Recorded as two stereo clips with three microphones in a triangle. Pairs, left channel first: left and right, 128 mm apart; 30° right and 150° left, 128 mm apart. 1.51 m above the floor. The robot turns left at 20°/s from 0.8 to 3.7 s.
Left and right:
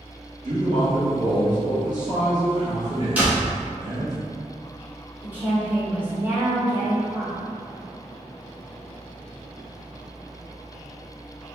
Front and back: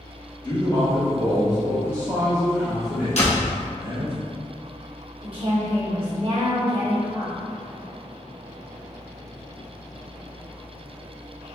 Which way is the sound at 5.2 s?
165° right.